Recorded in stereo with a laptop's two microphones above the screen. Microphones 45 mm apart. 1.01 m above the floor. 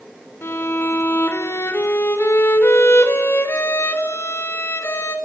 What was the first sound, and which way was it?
A violin, 65° left (ahead or behind).